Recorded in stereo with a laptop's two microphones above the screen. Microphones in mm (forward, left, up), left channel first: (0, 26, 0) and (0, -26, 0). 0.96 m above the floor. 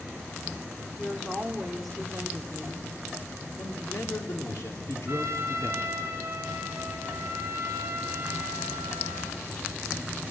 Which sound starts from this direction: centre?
A woman speaking, at 1.0 s.